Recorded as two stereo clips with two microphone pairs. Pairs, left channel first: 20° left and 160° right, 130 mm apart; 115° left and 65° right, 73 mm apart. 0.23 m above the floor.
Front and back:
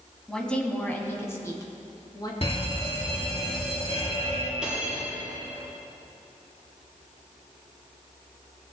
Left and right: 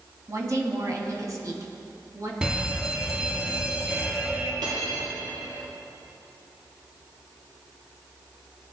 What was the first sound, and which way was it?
A woman speaking, 65° right.